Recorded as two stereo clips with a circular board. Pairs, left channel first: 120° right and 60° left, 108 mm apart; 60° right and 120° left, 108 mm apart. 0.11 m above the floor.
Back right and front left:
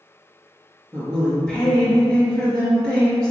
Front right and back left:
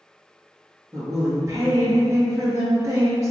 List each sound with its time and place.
0.9 s a woman speaking: 160° left, 1.7 m